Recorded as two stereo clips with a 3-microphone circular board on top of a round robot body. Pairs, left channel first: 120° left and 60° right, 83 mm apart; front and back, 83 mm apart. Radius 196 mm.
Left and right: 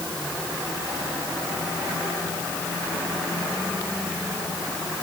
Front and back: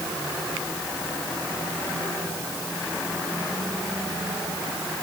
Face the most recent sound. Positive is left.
No sound to turn to.